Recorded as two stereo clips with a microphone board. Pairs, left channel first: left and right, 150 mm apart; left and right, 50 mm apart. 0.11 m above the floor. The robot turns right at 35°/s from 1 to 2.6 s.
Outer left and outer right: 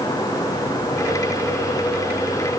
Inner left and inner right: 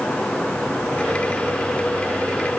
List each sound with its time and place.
Only background noise.